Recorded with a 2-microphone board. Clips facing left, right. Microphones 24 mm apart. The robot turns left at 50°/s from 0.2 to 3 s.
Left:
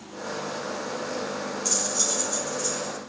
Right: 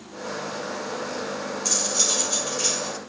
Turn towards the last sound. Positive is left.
turn(degrees=-95)